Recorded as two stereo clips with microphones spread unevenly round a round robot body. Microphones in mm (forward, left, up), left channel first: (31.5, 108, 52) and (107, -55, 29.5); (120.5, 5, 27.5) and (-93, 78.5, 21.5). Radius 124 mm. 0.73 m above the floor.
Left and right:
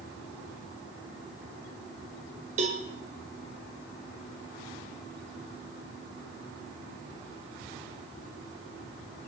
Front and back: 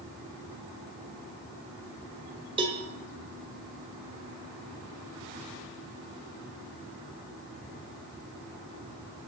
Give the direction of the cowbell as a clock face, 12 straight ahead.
4 o'clock.